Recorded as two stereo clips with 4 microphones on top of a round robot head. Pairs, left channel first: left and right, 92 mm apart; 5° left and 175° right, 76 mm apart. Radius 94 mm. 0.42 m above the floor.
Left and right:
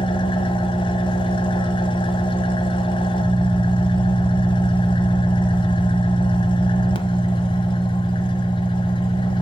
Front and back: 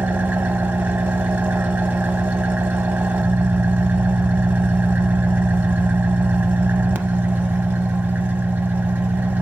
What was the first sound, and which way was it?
An engine running, 115° left.